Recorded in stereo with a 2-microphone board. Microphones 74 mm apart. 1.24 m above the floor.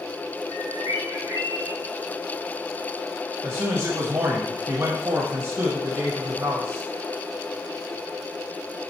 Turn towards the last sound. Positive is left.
turn(degrees=-60)  # may be behind; listen again after turning